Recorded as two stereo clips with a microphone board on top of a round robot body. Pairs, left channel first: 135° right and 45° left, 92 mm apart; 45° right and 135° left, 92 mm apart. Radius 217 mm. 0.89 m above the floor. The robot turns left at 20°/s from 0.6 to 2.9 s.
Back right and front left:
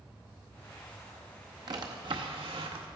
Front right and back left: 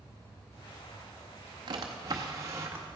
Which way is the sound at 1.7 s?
90° left.